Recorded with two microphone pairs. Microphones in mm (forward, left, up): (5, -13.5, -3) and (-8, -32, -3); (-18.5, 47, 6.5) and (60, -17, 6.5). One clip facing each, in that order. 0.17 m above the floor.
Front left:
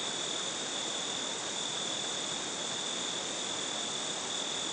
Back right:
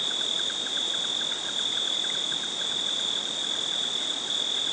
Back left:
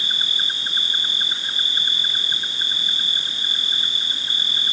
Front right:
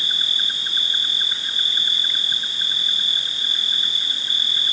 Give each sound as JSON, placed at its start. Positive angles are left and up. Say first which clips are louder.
{"t": 0.0, "sound": "an insect", "louder": "back right 8 dB, back left 1 dB", "azimuth_deg": -165}